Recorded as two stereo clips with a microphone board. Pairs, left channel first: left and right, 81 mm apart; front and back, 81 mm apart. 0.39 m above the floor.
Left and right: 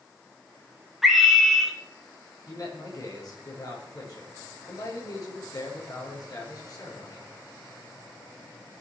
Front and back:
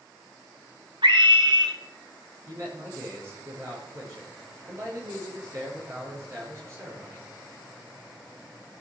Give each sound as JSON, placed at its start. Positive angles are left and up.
{"t": 1.0, "sound": "a scream", "azimuth_deg": -175, "distance_m": 3.5}
{"t": 2.5, "sound": "a man speaking", "azimuth_deg": 130, "distance_m": 7.0}